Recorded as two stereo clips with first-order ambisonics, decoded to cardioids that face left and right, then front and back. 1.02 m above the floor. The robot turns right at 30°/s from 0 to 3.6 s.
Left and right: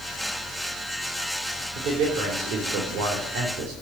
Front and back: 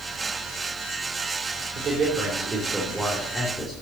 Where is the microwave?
No microwave in this recording.